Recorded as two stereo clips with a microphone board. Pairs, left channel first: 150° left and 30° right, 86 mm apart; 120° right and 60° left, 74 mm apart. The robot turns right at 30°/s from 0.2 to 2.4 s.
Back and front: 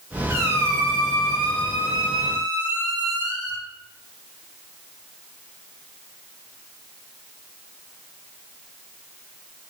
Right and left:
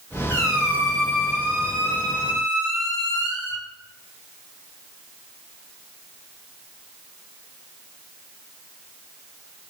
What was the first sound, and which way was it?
A squeak, 80° right.